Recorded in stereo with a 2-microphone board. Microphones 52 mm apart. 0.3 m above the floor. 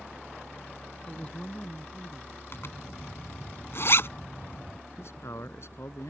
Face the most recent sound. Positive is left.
turn(degrees=65)  # may be behind; listen again after turning